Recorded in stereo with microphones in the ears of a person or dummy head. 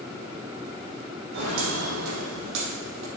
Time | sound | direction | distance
1.3 | footsteps | 70° right (ahead or behind) | 4 m